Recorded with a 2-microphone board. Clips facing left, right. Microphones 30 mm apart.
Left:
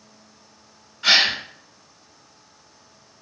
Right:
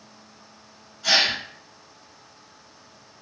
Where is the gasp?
75° left (ahead or behind), 0.6 m.